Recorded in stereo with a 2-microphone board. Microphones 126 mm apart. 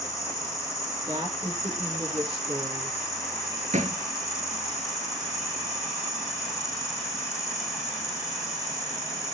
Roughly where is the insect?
Left.